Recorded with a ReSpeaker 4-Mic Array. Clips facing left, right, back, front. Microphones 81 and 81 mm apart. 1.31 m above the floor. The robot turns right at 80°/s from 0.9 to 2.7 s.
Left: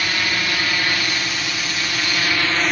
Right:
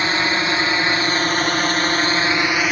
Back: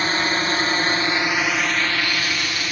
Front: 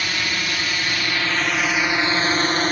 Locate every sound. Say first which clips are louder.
0.0 s a drone: right 4 dB, back 4 dB; 140° right; by 2.7 s 10° right